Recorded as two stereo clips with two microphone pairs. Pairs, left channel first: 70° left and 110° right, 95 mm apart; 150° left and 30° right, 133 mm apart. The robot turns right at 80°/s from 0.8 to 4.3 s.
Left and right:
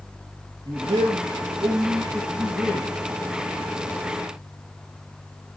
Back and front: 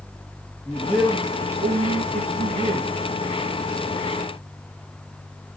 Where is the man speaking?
125° right, 3 m; by 2.9 s 45° left, 3 m.